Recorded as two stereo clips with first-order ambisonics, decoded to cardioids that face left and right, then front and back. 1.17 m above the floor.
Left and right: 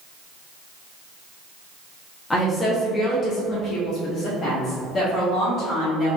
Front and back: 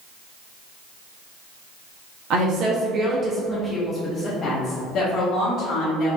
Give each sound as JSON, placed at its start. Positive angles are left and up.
{"t": 2.3, "sound": "a woman speaking", "azimuth_deg": 165, "distance_m": 1.0}